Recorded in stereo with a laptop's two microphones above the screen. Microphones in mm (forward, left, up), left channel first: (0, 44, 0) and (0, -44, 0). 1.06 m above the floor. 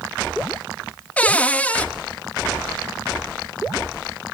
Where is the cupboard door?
15° left (ahead or behind), 0.5 m.